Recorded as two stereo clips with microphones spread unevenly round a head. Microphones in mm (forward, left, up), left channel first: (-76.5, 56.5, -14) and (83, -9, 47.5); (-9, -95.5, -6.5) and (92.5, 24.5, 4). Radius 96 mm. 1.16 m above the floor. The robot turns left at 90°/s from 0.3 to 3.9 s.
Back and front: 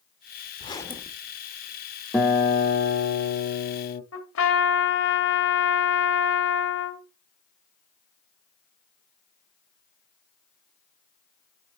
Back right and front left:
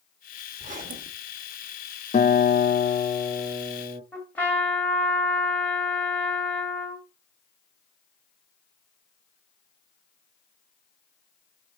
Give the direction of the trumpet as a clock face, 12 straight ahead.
7 o'clock.